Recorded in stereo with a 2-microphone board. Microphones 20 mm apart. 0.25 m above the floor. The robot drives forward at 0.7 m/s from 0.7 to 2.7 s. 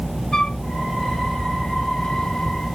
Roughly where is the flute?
Left.